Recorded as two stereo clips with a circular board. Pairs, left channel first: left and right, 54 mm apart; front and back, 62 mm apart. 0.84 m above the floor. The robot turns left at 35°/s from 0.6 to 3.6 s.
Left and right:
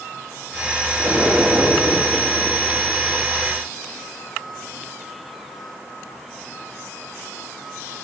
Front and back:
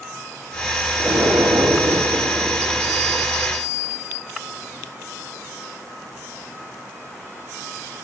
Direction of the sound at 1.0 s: 150° right.